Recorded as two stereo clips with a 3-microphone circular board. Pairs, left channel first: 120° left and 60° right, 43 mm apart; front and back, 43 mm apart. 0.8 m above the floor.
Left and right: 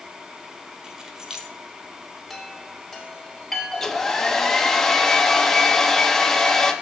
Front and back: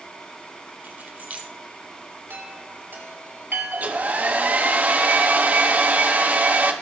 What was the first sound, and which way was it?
Keys jangling, 135° right.